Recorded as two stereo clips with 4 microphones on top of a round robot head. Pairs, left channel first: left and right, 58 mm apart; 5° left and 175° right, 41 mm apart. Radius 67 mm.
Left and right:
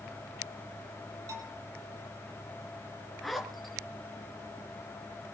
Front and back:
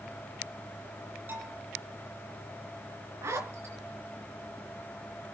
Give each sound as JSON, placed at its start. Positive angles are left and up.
{"t": 1.3, "sound": "a bell", "azimuth_deg": -125, "distance_m": 7.0}
{"t": 3.2, "sound": "a zipper", "azimuth_deg": 180, "distance_m": 3.5}